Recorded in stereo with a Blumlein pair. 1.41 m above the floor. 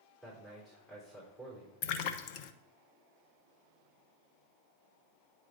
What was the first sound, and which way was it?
A man speaking, 10° right.